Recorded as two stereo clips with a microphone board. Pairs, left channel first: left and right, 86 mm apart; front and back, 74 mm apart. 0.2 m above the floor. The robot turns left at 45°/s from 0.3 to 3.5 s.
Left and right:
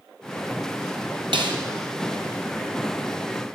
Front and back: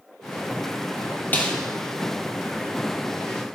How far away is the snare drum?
About 1.3 m.